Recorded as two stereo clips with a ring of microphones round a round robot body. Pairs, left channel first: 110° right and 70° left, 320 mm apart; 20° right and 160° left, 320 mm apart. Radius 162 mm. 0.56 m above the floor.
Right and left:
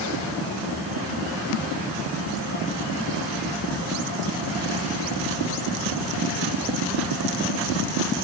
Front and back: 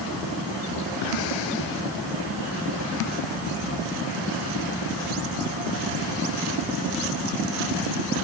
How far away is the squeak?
No squeak in this recording.